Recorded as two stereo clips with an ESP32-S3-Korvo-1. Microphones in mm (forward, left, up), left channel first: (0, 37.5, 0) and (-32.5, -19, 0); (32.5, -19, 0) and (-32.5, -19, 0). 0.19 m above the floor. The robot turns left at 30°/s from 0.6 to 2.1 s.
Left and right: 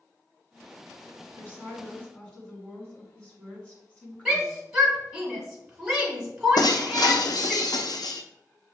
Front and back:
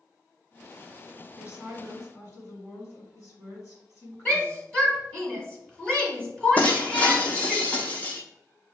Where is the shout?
60° right, 1.3 m.